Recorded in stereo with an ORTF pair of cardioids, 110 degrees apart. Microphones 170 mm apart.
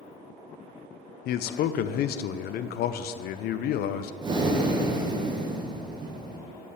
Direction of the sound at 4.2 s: 25° right.